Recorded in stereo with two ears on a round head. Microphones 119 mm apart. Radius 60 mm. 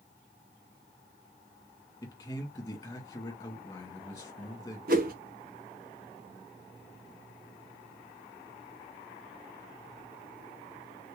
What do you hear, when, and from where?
2.0 s a man speaking: 20° left (ahead or behind), 1.6 m
4.9 s a whoosh: 65° right (ahead or behind), 1.0 m